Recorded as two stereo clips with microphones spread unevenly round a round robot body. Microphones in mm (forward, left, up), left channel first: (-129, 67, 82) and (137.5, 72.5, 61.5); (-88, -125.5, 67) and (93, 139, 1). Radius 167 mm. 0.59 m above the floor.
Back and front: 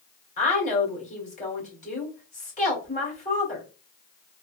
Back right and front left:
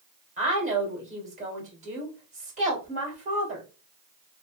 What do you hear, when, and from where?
0.4 s a woman speaking: 120° left, 2.5 m